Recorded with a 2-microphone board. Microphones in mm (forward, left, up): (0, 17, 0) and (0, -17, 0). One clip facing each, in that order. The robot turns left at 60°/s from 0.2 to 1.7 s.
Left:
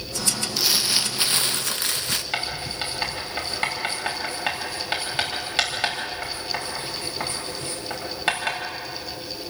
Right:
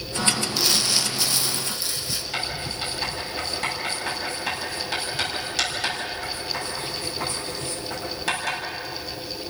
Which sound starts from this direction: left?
Writing, at 2.3 s.